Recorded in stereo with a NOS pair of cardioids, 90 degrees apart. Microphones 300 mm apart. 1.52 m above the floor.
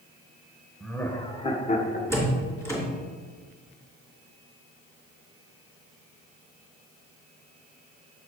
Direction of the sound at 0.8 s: 5° left.